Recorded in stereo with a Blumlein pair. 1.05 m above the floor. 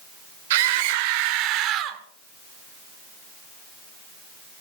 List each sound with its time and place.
0.5 s a scream: 55° right, 2.5 m; by 2.0 s 30° right, 1.8 m